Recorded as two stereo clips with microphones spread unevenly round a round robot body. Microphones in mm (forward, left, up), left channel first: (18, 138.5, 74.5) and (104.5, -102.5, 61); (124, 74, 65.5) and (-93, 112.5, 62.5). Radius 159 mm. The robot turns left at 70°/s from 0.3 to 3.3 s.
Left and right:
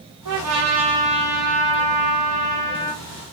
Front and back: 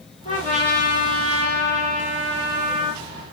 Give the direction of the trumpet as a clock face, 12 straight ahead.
3 o'clock.